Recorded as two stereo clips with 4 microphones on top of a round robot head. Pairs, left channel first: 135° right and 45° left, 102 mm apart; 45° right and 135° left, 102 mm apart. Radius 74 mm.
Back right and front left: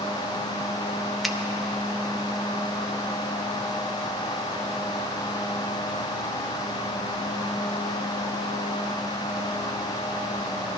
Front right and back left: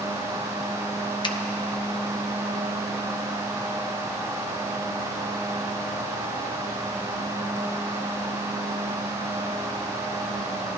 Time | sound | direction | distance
1.2 | a finger snap | 45° right | 0.9 m